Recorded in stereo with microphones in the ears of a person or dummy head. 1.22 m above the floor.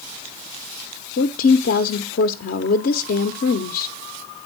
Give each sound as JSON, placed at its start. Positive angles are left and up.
{"t": 1.2, "sound": "a woman speaking", "side_deg": 60, "distance_m": 0.7}